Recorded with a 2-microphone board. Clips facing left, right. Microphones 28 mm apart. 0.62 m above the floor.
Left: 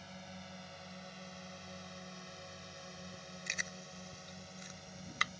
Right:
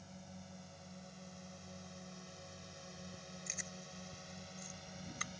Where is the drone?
60° left (ahead or behind); by 5.4 s 5° right (ahead or behind).